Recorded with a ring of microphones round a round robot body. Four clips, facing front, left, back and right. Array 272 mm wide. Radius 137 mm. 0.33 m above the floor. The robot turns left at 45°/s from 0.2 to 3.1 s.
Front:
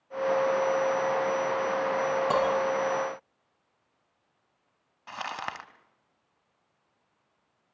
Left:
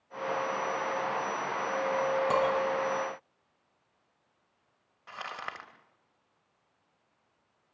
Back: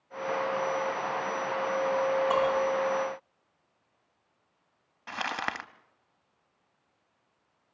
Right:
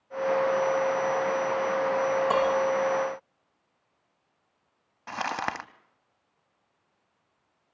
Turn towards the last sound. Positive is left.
turn(degrees=-105)